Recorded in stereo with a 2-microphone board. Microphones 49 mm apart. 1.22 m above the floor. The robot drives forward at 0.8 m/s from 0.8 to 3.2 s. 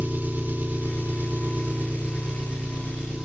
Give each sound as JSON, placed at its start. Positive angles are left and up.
{"t": 0.0, "sound": "an engine running", "side_deg": -35, "distance_m": 1.0}